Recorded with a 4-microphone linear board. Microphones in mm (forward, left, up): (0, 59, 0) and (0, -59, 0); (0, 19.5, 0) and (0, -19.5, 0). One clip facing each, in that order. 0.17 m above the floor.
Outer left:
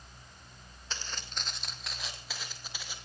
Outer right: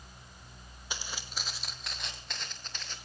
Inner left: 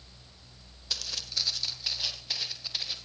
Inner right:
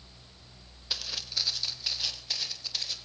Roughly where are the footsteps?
Centre.